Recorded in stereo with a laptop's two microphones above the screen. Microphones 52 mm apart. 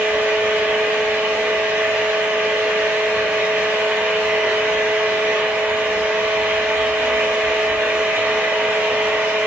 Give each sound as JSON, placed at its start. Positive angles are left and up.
{"t": 0.0, "sound": "a fan", "side_deg": -40, "distance_m": 0.8}